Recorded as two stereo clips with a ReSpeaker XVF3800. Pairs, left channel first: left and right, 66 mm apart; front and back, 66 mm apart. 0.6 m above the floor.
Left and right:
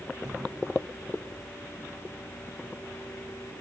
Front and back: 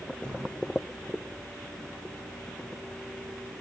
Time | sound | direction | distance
0.2 | a thud | 75° right | 7.5 m